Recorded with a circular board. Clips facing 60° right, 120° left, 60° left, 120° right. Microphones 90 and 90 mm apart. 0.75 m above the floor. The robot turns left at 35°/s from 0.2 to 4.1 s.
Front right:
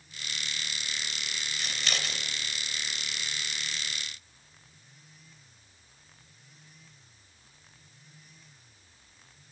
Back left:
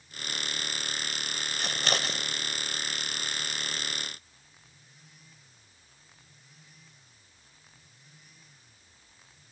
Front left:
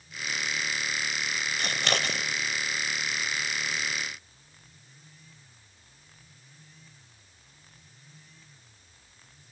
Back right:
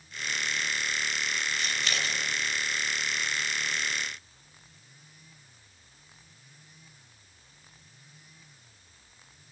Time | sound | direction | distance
1.6 | scissors | 95° left | 0.9 m